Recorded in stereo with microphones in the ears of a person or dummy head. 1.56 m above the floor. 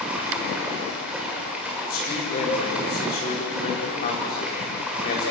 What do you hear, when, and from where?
0.0 s running water: 5° right (ahead or behind), 4.5 m
1.9 s a man speaking: 50° left (ahead or behind), 5.5 m